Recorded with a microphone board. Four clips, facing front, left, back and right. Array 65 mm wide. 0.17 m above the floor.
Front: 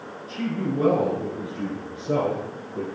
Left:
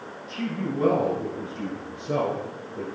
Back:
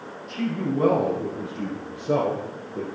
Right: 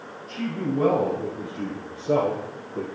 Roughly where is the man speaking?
Behind right.